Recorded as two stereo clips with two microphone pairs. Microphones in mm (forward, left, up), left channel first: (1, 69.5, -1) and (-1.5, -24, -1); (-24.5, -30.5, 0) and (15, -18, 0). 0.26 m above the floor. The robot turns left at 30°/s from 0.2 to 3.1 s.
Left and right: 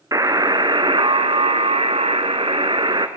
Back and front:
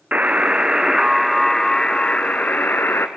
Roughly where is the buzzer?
Ahead right.